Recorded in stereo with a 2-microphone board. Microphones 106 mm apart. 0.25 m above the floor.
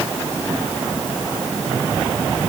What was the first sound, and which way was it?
Only background noise.